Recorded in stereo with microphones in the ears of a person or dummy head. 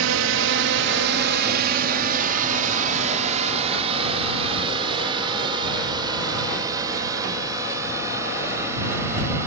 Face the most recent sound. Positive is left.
turn(degrees=-15)  # may be behind; listen again after turning